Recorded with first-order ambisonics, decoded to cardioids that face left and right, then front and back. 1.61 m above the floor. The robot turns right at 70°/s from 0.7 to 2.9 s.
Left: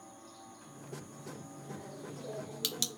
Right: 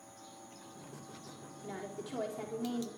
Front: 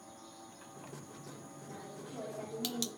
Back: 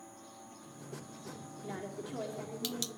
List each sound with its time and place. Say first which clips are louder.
1.6 s a woman speaking: right 5 dB, back 7 dB; 145° right, 5 m; by 2.9 s 60° right, 5 m